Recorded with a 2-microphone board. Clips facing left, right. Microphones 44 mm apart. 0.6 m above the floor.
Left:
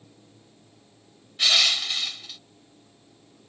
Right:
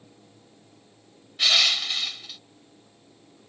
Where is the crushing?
5° right (ahead or behind).